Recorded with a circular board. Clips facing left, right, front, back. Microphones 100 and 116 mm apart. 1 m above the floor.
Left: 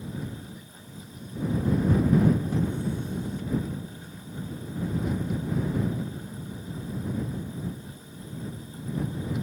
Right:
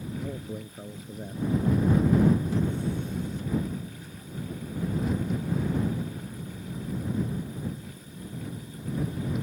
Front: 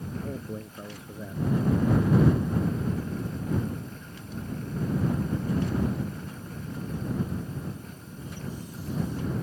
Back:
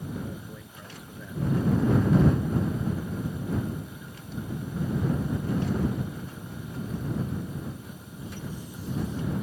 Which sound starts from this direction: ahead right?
A man speaking, at 0.2 s.